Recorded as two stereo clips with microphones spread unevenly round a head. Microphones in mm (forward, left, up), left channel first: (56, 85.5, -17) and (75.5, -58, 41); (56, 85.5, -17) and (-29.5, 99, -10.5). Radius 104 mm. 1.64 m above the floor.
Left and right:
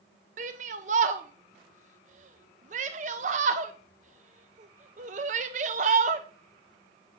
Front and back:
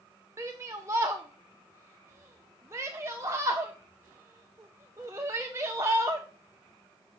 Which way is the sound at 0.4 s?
120° right.